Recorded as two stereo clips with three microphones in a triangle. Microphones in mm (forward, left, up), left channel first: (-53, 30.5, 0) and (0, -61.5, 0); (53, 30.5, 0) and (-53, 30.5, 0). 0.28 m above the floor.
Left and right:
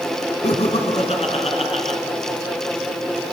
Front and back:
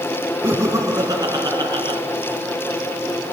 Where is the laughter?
115° left, 2.5 m; by 2.0 s 135° left, 3 m.